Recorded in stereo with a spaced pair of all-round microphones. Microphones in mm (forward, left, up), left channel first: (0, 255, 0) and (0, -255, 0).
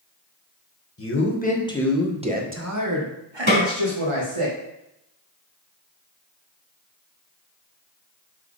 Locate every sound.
1.0 s a man speaking: 25° left (ahead or behind), 1.7 m; by 4.5 s 80° right, 2 m
3.5 s a snare drum: 65° right (ahead or behind), 4 m